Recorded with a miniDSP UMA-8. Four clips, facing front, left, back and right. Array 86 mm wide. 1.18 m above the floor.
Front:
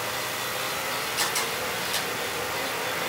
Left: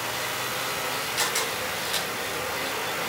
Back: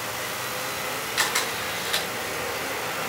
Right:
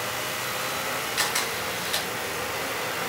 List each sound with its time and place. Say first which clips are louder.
1.2 s a camera shutter: even, back 5 dB; 170° right, 6 m